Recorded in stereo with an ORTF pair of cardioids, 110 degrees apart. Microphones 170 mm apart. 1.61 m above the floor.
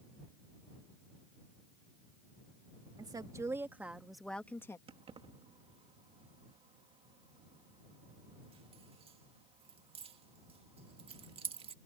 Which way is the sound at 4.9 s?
35° right.